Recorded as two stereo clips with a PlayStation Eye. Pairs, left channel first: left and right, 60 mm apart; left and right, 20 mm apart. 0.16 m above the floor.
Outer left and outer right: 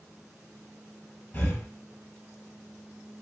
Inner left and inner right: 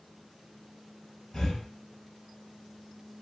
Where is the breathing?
25° left (ahead or behind), 1.4 m.